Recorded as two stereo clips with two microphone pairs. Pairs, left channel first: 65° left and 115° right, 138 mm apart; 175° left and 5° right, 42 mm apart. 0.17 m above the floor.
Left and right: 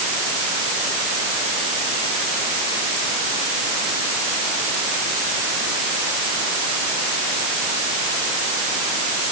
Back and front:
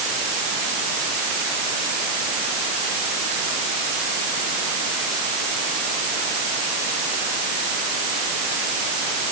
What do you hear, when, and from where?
Only background noise.